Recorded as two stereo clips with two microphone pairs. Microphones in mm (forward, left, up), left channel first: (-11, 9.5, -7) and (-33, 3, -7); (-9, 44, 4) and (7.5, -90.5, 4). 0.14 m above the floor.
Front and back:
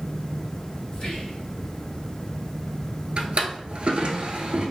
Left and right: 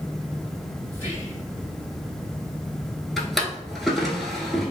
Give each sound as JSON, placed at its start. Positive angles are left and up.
{"t": 0.9, "sound": "whispering", "azimuth_deg": 30, "distance_m": 2.0}
{"t": 3.2, "sound": "a drawer", "azimuth_deg": -170, "distance_m": 0.7}